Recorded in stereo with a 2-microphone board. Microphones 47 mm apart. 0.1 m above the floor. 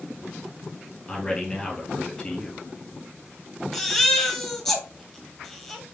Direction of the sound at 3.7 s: 10° left (ahead or behind).